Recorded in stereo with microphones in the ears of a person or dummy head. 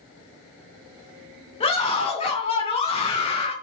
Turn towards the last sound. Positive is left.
turn(degrees=25)  # may be behind; listen again after turning